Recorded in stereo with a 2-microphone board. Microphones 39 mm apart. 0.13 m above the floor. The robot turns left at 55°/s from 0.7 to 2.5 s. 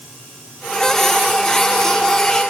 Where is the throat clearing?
No throat clearing in this recording.